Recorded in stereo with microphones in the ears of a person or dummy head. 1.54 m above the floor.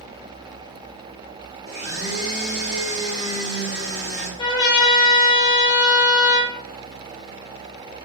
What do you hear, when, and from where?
1.7 s a blender: 20° right (ahead or behind), 1.1 m
4.4 s a trumpet: 25° left (ahead or behind), 0.7 m